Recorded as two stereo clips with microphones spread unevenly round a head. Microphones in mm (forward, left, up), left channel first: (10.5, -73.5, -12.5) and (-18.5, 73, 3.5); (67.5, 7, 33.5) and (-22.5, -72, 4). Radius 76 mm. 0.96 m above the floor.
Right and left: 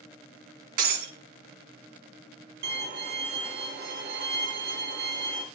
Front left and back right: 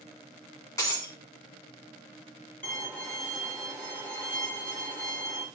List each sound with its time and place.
0.8 s breaking glass: 105° left, 1.8 m
2.6 s a violin: 125° left, 1.9 m